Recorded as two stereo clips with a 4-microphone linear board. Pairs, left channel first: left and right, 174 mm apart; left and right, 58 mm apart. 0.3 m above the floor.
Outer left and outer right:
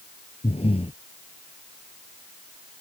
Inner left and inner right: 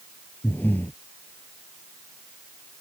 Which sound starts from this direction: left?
Breathing, at 0.4 s.